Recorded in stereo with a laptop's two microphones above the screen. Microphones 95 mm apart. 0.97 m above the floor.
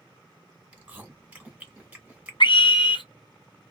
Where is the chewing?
15° right (ahead or behind), 1.3 m.